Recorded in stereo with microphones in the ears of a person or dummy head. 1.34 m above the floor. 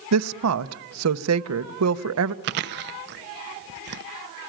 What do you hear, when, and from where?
0.1 s a woman speaking: 90° right, 0.9 m
2.4 s chewing: 55° right (ahead or behind), 0.5 m